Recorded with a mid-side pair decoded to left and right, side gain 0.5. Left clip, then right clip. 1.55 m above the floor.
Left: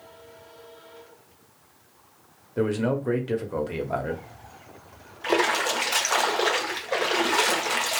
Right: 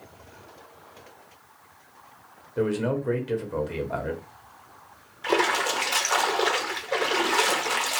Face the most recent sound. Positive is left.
turn(degrees=0)